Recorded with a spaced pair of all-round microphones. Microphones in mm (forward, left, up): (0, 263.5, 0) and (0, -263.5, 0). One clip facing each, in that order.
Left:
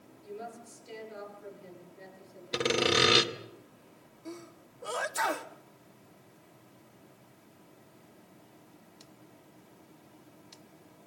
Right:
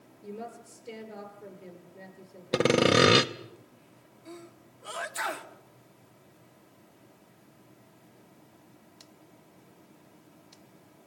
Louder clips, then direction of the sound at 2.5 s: Right 6 dB; 70° right (ahead or behind).